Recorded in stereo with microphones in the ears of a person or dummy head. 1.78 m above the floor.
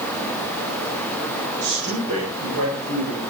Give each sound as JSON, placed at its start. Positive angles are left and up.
{"t": 1.6, "sound": "a man speaking", "side_deg": -85, "distance_m": 7.5}